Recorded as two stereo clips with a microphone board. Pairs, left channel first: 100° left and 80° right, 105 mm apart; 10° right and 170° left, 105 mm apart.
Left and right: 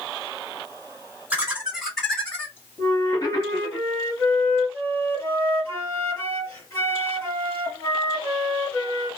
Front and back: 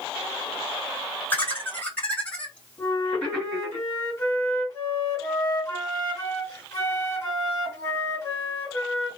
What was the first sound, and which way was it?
Laughter, 45° right.